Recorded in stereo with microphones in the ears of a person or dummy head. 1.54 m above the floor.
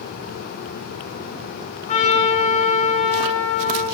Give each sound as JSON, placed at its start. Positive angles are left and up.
{"t": 1.9, "sound": "a trumpet", "side_deg": 40, "distance_m": 7.5}